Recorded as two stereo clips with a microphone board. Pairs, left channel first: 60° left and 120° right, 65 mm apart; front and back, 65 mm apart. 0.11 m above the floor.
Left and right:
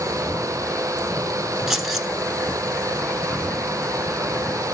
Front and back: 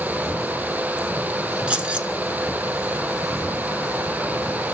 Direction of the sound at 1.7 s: 165° left.